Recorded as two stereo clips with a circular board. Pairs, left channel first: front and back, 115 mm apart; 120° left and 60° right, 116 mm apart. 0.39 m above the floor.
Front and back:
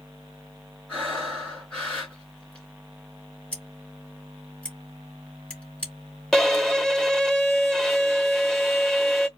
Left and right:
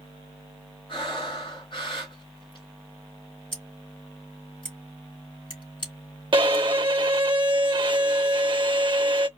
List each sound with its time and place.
0.9 s breathing: 80° left, 4 m
3.5 s scissors: 75° left, 3.5 m
6.3 s a violin: 85° right, 0.6 m